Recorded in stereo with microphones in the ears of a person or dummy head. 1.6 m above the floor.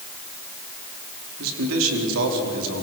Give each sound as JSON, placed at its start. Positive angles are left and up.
{"t": 1.4, "sound": "a man speaking", "side_deg": -75, "distance_m": 4.5}